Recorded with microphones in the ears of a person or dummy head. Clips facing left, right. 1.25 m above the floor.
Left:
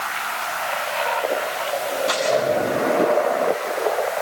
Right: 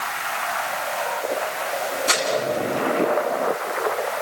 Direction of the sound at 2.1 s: 35° right (ahead or behind).